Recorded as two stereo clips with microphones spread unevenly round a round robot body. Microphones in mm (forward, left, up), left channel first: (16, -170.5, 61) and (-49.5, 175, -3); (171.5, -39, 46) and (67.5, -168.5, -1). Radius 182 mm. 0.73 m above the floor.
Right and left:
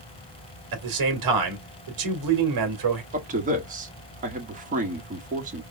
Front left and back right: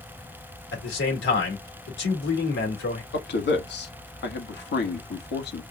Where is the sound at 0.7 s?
70° left, 2 m.